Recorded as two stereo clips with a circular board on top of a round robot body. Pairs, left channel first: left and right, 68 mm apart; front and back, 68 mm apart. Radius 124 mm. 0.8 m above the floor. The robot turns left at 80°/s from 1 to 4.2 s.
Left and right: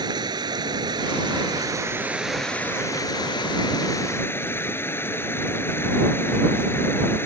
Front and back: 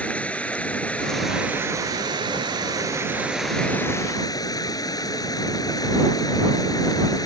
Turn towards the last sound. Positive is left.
turn(degrees=30)